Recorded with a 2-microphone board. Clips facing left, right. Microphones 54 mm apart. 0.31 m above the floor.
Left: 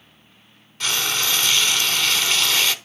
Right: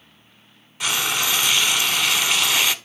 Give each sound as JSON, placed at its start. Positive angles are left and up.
{"t": 0.8, "sound": "frying", "side_deg": -10, "distance_m": 0.6}